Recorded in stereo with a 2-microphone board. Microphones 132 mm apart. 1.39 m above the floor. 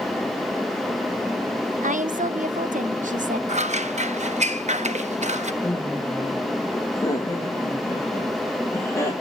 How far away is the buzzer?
I don't hear a buzzer.